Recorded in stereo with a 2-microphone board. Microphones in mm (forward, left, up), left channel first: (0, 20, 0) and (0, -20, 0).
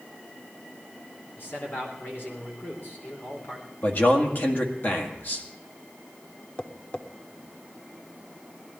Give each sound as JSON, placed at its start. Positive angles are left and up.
{"t": 1.4, "sound": "a man speaking", "side_deg": 55, "distance_m": 3.5}
{"t": 3.8, "sound": "a man speaking", "side_deg": 55, "distance_m": 2.0}
{"t": 6.6, "sound": "tapping", "side_deg": 30, "distance_m": 0.8}